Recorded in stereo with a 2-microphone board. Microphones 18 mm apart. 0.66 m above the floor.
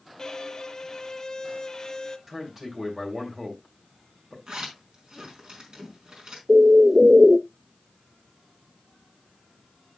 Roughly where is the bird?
Right.